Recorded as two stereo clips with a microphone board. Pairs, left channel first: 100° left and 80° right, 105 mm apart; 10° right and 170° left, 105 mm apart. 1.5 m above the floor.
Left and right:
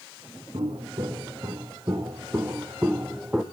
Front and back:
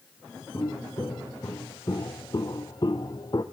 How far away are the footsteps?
About 3 m.